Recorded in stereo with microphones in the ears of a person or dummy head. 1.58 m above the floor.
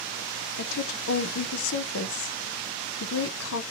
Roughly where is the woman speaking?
Left.